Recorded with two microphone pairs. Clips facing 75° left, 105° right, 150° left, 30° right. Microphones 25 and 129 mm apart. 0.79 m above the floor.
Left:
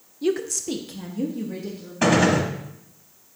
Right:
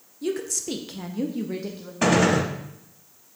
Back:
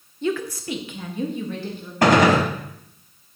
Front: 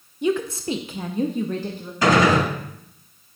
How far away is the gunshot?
About 1.3 m.